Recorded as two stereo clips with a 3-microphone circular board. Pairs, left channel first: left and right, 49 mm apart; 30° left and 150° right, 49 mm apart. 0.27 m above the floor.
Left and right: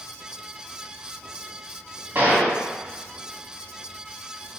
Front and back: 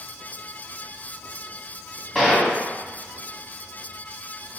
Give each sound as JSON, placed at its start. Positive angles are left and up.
{"t": 2.1, "sound": "a gunshot", "azimuth_deg": -65, "distance_m": 2.0}